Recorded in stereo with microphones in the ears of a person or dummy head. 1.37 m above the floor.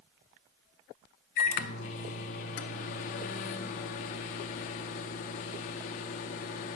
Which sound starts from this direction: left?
A microwave, at 1.4 s.